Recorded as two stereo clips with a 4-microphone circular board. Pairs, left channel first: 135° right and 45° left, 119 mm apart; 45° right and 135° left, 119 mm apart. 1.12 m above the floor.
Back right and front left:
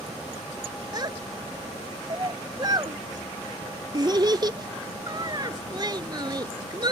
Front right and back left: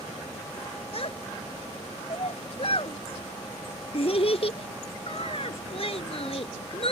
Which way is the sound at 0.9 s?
10° right.